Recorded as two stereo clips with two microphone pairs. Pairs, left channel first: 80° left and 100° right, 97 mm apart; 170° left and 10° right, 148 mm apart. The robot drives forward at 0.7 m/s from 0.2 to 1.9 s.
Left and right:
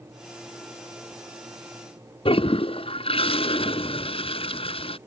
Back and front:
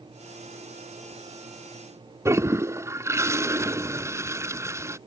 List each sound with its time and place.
2.2 s a toilet flushing: 65° left